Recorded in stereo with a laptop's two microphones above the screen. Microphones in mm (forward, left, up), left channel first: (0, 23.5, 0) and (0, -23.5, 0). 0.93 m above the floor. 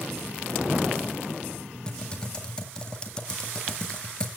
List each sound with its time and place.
1.9 s typing on a keyboard: 15° left (ahead or behind), 2.0 m